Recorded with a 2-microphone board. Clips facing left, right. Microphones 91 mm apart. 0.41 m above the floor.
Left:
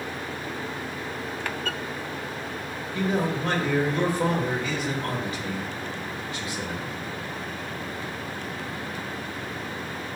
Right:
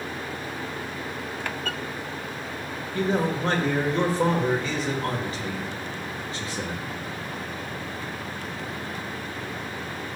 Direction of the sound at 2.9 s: 35° right (ahead or behind).